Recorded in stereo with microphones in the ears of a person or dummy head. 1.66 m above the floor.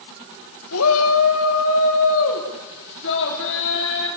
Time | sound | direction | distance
0.7 | a shout | 90° left | 2.5 m